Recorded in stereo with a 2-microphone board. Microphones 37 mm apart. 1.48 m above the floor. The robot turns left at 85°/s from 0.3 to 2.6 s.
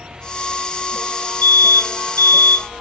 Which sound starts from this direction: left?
An alarm, at 1.4 s.